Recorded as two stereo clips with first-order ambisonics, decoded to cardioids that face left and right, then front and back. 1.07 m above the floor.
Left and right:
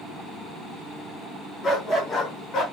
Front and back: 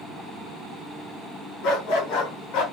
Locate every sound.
1.6 s a dog barking: 15° left, 3.5 m; by 2.6 s 30° left, 3.5 m